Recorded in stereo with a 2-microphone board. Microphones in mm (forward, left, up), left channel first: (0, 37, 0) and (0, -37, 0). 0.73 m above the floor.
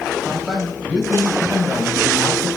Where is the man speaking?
10° right (ahead or behind), 3.5 m; by 2.5 s 20° right (ahead or behind), 4.5 m.